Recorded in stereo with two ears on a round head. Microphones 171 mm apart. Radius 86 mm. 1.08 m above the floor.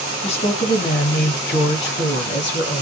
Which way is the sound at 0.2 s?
30° left (ahead or behind).